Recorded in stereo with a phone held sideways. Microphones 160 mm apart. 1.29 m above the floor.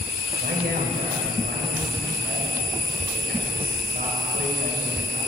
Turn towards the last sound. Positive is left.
turn(degrees=-75)  # may be behind; listen again after turning